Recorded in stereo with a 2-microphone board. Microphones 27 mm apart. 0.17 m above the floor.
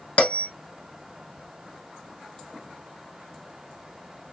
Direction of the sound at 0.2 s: 55° left (ahead or behind).